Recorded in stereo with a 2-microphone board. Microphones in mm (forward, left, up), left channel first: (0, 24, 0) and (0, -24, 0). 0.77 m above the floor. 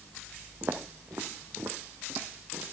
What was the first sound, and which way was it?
Footsteps, 45° right (ahead or behind).